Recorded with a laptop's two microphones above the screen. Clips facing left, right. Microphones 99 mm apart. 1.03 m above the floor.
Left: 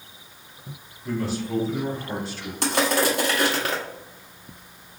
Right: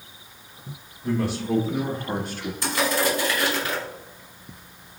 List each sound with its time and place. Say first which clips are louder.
1.0 s a man speaking: right 2 dB; 70° right (ahead or behind), 1.9 m; by 2.5 s 45° right (ahead or behind), 1.1 m
2.6 s crushing: left 2 dB; 75° left (ahead or behind), 1.3 m